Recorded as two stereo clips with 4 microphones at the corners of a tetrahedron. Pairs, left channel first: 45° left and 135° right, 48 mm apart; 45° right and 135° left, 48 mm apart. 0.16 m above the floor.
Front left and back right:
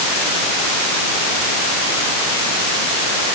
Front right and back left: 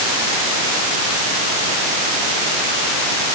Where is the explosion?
I don't hear an explosion.